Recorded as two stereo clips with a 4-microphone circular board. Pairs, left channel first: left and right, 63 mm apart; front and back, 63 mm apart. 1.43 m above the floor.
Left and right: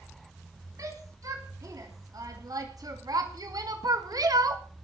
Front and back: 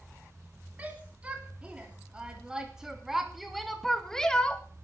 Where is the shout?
115° right, 4.5 m; by 4.6 s 70° right, 2 m.